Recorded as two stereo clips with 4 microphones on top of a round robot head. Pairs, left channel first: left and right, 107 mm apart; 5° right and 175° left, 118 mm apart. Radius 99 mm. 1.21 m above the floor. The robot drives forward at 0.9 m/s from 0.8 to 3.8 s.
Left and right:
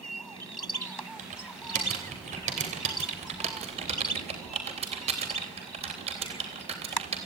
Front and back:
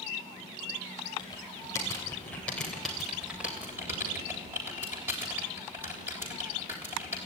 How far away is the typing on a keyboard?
About 3.5 m.